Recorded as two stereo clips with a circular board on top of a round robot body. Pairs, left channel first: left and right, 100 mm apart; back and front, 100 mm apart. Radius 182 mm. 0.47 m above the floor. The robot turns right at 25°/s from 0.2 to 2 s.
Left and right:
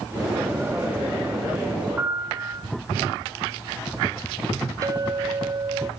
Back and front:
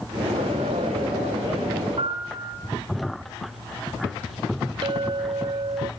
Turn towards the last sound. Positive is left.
turn(degrees=-35)